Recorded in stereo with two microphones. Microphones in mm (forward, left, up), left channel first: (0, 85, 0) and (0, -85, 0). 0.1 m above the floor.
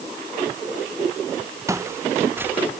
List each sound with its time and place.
1.7 s footsteps: 20° right (ahead or behind); by 2.7 s 10° right (ahead or behind)